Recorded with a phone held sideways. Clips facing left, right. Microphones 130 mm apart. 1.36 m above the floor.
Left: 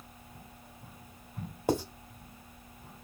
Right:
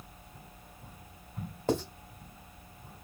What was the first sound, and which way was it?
Writing, 10° left (ahead or behind).